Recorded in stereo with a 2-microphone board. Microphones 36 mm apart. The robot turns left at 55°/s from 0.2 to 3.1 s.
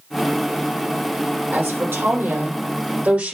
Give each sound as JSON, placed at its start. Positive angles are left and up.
{"t": 1.5, "sound": "a woman speaking", "azimuth_deg": -45, "distance_m": 6.0}